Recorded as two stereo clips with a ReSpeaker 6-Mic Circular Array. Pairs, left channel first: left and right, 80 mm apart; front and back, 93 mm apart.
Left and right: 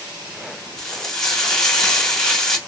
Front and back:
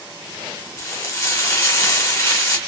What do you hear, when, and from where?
0.8 s frying: 10° left, 1.1 m